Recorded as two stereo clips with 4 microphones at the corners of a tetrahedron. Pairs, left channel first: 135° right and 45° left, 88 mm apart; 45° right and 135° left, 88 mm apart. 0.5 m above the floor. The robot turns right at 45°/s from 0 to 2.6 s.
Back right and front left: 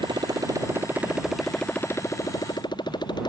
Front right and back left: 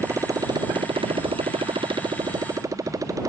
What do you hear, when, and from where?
0.0 s a motorcycle: 75° left; by 3.3 s 175° right